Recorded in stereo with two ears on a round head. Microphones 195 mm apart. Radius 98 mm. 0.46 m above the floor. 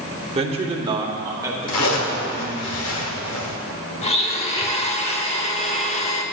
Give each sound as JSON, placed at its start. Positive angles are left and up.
{"t": 0.3, "sound": "a man speaking", "side_deg": -30, "distance_m": 1.0}
{"t": 1.7, "sound": "a zipper", "side_deg": 85, "distance_m": 2.0}
{"t": 4.0, "sound": "a blender", "side_deg": 30, "distance_m": 0.8}